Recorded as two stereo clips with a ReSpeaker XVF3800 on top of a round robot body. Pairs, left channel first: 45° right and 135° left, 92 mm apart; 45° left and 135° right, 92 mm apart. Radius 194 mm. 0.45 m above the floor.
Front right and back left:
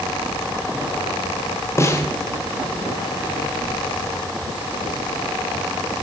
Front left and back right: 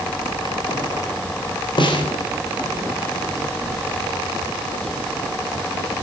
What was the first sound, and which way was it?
A snare drum, 15° left.